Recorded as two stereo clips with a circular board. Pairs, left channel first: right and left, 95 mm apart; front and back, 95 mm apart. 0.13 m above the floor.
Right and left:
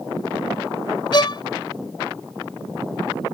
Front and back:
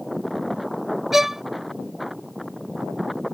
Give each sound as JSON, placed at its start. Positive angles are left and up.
{"t": 1.1, "sound": "a violin", "azimuth_deg": -95}